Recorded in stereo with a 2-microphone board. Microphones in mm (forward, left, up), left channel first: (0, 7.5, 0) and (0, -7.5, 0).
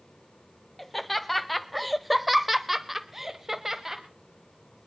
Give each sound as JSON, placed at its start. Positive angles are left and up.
{"t": 0.8, "sound": "laughter", "side_deg": 5, "distance_m": 1.6}